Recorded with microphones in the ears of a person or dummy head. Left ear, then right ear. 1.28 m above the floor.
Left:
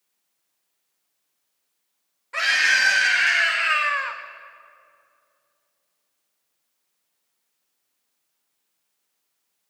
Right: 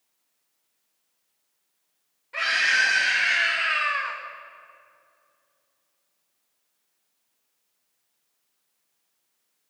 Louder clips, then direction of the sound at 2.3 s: Left 3 dB; 30° left (ahead or behind).